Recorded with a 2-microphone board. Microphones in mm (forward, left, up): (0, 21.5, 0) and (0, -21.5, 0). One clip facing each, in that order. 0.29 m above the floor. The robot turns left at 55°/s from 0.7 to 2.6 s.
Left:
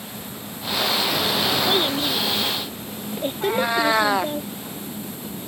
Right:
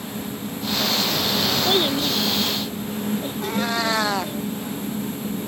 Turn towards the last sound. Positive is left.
turn(degrees=10)  # may be behind; listen again after turning